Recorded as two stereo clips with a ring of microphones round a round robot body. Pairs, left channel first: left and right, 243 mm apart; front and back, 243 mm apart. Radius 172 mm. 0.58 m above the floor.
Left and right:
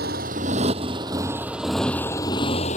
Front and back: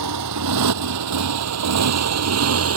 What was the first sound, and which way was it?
A motorcycle, 155° right.